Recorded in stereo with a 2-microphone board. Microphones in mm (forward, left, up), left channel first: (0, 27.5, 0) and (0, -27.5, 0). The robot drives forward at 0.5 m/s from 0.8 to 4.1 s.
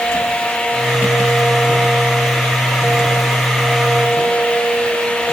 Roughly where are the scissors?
No scissors in this recording.